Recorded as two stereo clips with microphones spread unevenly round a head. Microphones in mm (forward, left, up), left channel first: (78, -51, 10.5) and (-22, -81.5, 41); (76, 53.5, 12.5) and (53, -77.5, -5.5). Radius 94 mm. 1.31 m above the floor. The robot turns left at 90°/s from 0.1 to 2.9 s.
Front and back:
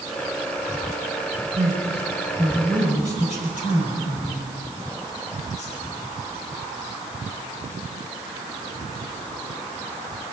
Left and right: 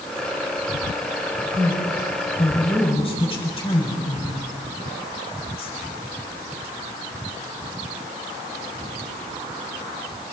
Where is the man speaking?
155° left, 8 m; by 5.8 s 35° left, 8 m.